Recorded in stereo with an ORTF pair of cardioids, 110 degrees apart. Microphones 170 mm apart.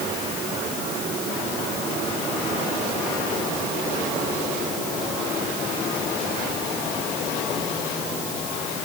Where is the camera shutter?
I don't hear a camera shutter.